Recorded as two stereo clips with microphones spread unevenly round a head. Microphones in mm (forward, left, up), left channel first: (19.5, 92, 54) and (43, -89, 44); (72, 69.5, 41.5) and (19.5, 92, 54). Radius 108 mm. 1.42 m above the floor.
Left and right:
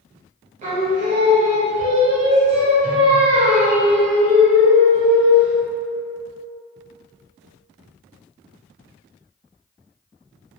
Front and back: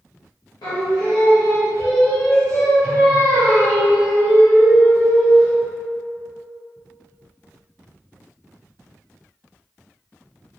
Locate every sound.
0.6 s singing: 30° right, 0.9 m